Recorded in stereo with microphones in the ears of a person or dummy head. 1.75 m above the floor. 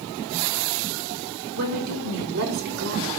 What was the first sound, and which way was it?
A woman speaking, 55° right (ahead or behind).